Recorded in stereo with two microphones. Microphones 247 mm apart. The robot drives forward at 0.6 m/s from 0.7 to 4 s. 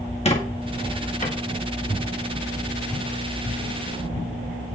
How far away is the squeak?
About 1.8 m.